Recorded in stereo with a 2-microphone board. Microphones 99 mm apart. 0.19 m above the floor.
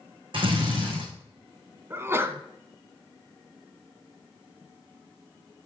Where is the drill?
60° right (ahead or behind), 5.5 m.